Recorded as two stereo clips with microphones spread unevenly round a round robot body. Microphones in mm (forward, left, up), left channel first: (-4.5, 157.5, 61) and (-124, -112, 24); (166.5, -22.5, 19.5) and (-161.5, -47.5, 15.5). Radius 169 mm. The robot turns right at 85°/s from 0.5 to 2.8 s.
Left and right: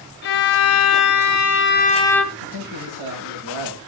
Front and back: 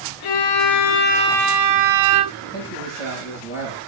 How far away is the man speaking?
About 8.5 m.